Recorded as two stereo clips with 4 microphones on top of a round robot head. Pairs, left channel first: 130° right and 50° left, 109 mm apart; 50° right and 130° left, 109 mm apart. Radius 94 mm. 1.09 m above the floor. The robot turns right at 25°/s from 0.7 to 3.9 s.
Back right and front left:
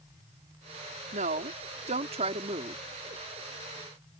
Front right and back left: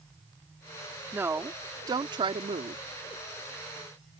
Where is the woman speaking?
55° left; by 2.8 s 100° left.